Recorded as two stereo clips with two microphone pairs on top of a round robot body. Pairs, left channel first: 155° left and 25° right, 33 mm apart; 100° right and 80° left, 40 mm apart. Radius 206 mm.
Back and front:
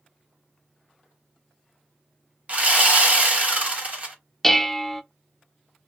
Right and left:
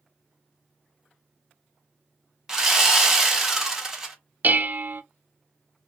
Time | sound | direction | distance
2.5 | sawing | 5° left | 1.3 m
4.4 | dishes clattering | 100° left | 0.5 m